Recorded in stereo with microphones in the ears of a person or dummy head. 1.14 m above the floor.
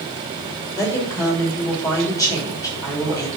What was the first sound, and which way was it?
A woman speaking, 20° left (ahead or behind).